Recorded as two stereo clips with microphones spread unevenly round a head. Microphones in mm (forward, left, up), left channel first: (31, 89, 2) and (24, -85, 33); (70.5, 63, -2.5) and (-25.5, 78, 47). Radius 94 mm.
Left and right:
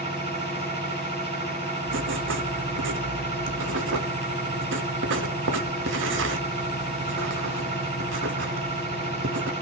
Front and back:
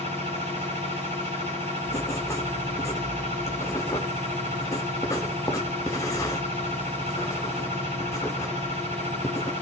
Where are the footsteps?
I don't hear footsteps.